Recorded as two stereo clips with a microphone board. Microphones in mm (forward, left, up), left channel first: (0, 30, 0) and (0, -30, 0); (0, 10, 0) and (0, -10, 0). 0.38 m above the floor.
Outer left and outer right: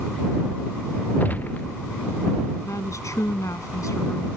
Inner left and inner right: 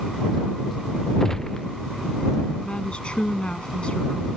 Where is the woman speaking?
70° left (ahead or behind).